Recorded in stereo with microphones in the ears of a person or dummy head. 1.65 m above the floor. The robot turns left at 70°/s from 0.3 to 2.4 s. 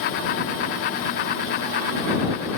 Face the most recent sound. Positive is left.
No sound to turn to.